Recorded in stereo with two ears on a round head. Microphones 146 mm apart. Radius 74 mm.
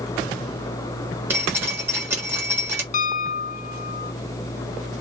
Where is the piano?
50° left (ahead or behind), 0.5 m.